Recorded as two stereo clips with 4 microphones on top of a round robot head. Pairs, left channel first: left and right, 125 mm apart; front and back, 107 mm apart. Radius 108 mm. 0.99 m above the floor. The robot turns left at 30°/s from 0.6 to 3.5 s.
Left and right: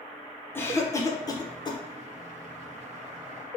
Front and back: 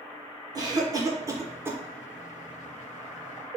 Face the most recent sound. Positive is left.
turn(degrees=65)